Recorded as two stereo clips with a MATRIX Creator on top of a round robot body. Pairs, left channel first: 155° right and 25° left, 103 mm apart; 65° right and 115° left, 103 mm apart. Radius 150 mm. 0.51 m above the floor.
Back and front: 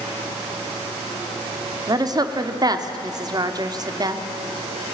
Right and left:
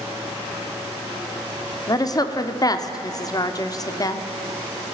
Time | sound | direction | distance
1.9 | a woman speaking | 20° right | 1.5 m